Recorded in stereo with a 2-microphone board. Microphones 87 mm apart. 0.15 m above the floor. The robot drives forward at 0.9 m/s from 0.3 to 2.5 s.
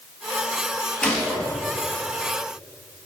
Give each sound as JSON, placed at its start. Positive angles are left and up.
{"t": 1.0, "sound": "a gunshot", "side_deg": 10, "distance_m": 1.5}